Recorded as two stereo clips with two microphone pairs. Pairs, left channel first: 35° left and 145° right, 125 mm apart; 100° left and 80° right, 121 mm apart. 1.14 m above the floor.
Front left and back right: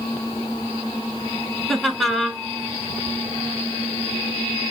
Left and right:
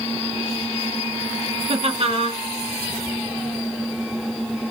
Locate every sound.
1.7 s laughter: 55° right, 0.7 m